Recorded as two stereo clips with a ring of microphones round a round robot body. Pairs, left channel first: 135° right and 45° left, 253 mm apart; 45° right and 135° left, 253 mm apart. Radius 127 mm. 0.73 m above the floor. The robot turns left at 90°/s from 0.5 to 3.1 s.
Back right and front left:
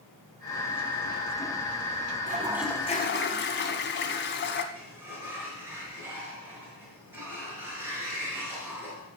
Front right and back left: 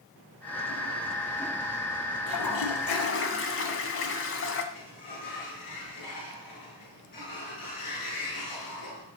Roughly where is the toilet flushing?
Ahead.